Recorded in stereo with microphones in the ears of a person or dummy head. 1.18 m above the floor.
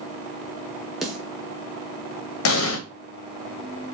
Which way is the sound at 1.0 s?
Centre (ahead or behind).